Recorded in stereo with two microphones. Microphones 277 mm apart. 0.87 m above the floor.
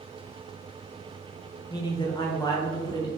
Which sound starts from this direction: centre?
A man speaking, at 1.7 s.